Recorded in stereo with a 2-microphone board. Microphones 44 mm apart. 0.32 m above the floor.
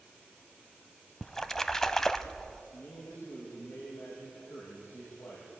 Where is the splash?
10° left (ahead or behind), 0.9 m.